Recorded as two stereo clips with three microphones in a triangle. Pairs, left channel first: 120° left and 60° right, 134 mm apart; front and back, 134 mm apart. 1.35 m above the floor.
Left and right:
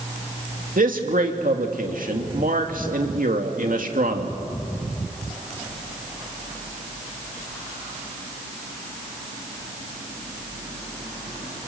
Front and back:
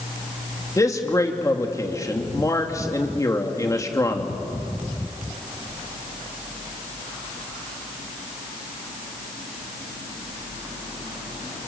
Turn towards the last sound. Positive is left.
turn(degrees=-65)